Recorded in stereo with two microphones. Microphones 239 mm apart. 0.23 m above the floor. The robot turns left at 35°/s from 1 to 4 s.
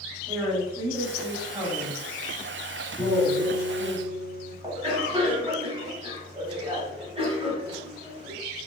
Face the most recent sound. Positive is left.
turn(degrees=-25)  # may be behind; listen again after turning